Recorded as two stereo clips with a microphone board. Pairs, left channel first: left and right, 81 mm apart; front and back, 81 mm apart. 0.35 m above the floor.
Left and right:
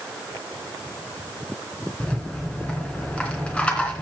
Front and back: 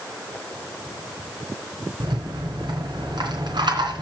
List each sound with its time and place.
2.0 s a rattle: 165° left, 3 m